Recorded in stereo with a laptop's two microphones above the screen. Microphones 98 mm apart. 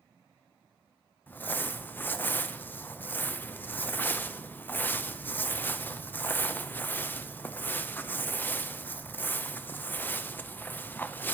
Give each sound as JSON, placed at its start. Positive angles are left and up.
{"t": 1.3, "sound": "crumpling", "side_deg": 20, "distance_m": 0.7}